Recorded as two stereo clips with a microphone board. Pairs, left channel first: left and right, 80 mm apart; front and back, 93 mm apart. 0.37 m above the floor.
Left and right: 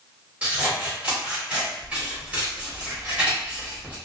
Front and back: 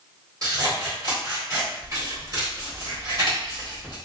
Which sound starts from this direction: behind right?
Scissors, at 0.4 s.